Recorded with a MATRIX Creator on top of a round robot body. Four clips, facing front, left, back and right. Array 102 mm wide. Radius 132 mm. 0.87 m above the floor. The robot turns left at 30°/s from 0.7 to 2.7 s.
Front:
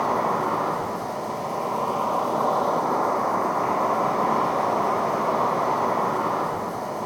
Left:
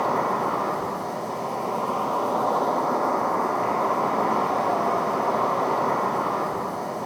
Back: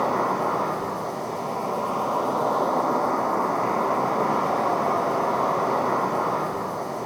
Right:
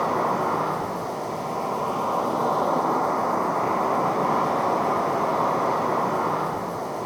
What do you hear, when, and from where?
0.0 s an insect: 145° right, 1.0 m; by 7.1 s 155° left, 1.0 m